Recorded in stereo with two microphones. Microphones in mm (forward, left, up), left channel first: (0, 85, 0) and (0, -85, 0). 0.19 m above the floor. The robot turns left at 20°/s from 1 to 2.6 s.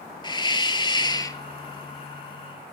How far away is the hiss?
About 0.7 m.